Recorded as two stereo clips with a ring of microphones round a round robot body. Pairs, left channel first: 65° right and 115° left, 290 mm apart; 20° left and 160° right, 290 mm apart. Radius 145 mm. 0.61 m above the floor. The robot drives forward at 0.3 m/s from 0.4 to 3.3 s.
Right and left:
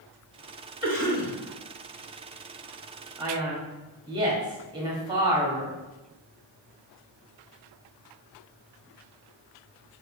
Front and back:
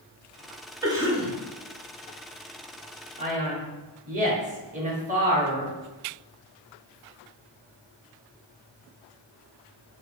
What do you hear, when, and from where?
0.8 s a cough: 90° right, 1.2 m; by 1.3 s 105° right, 1.2 m
3.2 s a man speaking: 170° left, 1.0 m